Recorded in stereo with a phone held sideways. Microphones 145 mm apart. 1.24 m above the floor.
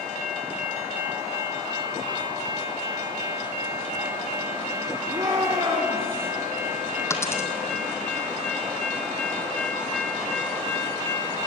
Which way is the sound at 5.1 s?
30° right (ahead or behind).